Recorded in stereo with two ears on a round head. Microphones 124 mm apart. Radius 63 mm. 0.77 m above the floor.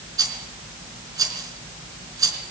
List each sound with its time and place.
0.2 s a rattle: 30° right (ahead or behind), 4.5 m